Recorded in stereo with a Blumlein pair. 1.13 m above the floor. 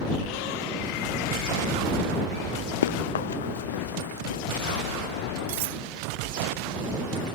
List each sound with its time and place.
2.8 s running footsteps: 65° left
5.5 s cutlery clinking: 50° right